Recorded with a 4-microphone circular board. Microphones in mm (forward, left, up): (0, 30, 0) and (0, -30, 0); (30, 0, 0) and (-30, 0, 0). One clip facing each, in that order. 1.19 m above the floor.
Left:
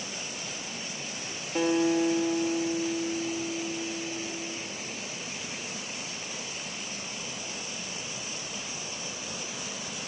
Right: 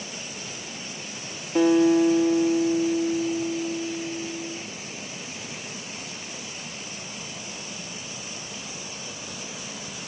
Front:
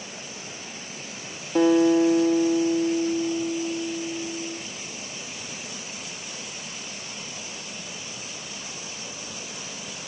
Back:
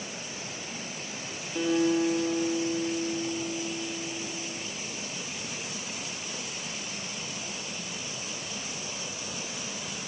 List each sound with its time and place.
1.6 s a guitar: 5° right, 1.3 m